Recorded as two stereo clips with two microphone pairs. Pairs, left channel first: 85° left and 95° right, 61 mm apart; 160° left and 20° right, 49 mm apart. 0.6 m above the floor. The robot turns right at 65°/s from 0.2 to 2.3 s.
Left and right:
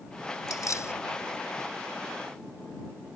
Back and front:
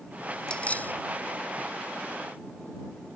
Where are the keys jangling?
90° left; by 0.9 s 120° left.